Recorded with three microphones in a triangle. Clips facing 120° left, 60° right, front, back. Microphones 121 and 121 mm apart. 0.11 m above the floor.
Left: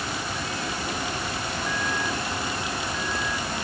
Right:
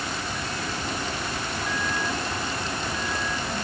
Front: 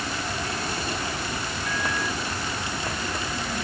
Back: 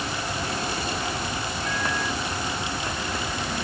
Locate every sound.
Only background noise.